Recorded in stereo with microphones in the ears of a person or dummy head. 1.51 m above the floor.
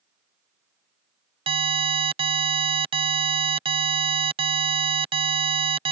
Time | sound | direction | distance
1.5 | an alarm | 20° right (ahead or behind) | ?